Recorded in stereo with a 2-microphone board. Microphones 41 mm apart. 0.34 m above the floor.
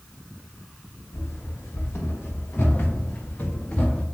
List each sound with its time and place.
1.1 s running footsteps: 70° left (ahead or behind), 3.5 m; by 4.0 s 35° left (ahead or behind), 2 m